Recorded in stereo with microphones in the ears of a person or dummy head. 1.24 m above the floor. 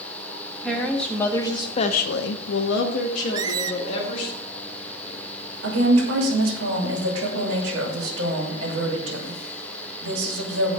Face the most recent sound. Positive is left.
turn(degrees=-80)